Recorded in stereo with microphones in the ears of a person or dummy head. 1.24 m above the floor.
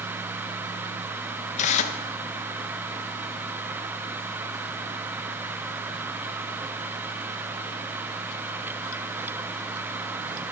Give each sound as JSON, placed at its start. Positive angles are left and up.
{"t": 1.6, "sound": "tearing paper", "side_deg": 40, "distance_m": 1.3}